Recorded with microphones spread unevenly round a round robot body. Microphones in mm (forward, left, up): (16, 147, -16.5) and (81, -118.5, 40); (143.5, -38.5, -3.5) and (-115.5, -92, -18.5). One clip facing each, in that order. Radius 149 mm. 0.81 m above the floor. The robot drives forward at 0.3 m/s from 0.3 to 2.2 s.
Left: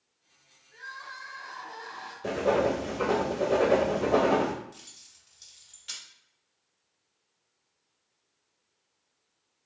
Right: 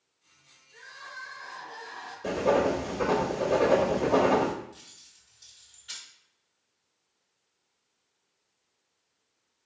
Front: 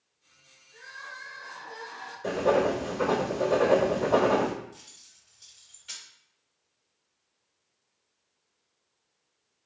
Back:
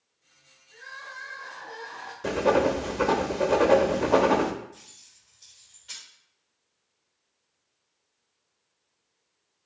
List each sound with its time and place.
0.7 s crying: 160° left, 1.8 m; by 2.1 s 165° left, 2 m
2.2 s writing: 150° right, 0.6 m
4.7 s keys jangling: 90° left, 1.4 m